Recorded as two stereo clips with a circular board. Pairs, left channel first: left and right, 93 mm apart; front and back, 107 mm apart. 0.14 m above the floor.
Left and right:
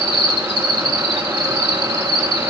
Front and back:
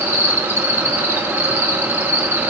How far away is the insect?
About 1.1 m.